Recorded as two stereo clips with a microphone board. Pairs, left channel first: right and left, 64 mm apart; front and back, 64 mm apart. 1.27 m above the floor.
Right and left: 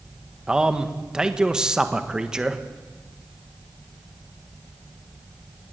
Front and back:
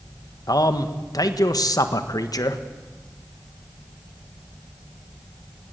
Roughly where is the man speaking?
Ahead.